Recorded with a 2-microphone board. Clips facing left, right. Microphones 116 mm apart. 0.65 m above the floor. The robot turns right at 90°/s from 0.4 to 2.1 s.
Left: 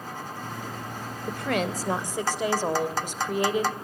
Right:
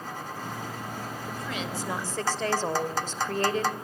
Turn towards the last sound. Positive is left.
turn(degrees=165)